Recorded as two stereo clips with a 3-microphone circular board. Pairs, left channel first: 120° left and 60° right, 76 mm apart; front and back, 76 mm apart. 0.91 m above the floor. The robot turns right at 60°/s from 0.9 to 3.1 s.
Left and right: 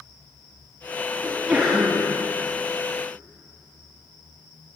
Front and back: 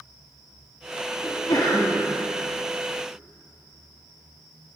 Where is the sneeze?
5° right, 1.4 m; by 2.1 s 50° left, 1.4 m.